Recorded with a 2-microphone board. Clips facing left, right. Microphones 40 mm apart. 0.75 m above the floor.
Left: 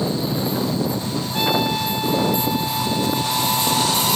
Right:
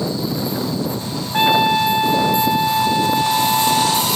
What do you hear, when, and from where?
1.3 s a trumpet: 35° right (ahead or behind)